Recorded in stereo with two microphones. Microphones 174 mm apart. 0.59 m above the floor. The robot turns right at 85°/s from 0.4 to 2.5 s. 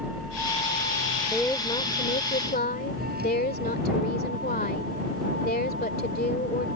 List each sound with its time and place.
0.0 s a vehicle: 10° right (ahead or behind); by 6.8 s 85° right
1.3 s a woman speaking: straight ahead; by 6.7 s 105° left